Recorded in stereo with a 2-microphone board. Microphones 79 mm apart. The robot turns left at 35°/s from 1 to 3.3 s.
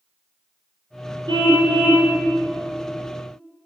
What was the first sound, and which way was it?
A car horn, 95° right.